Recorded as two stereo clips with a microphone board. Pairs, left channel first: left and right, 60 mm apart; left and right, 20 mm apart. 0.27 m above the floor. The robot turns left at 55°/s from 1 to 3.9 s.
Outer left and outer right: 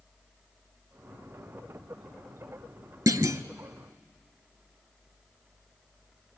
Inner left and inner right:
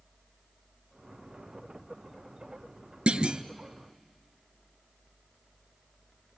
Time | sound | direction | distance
3.1 | a clunk | 75° right (ahead or behind) | 0.6 m